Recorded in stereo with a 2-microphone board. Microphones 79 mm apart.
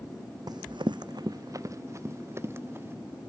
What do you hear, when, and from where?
0.5 s running footsteps: 55° right (ahead or behind); by 3.0 s 30° right (ahead or behind)